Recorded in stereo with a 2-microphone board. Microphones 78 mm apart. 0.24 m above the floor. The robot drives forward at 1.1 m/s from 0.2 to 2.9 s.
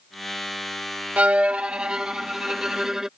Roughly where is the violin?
Centre.